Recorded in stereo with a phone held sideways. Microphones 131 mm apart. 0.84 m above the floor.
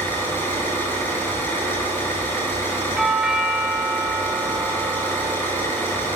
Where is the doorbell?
5° right (ahead or behind), 1.6 m.